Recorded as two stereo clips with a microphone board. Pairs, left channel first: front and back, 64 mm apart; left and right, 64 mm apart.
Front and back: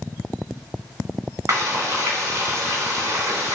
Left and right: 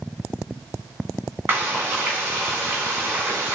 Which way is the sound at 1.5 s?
145° right.